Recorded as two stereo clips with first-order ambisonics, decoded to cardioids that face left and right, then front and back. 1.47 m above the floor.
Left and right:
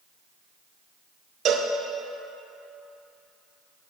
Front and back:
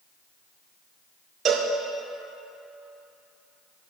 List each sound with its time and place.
1.4 s a cowbell: 130° right, 0.5 m